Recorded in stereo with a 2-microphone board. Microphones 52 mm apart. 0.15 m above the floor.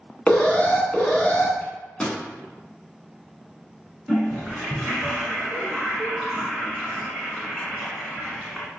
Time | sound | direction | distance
0.3 | an alarm | 20° left (ahead or behind) | 0.8 m
1.6 | a microwave | 20° left (ahead or behind) | 1.0 m
4.1 | a toilet flushing | centre (ahead or behind) | 1.2 m